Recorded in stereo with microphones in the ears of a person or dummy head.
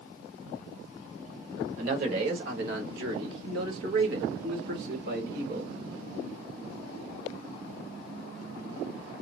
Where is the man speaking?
60° right (ahead or behind), 2 m; by 5.7 s 55° right (ahead or behind), 2.5 m.